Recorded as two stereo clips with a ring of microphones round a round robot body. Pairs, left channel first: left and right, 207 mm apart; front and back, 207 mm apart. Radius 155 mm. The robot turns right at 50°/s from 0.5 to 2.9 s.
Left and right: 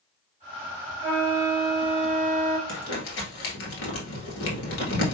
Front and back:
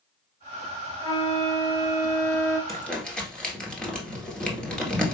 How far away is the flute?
About 1.2 m.